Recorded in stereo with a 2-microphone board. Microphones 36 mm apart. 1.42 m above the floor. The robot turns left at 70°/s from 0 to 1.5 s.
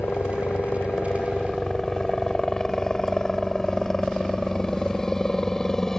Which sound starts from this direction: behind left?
A helicopter, at 0.0 s.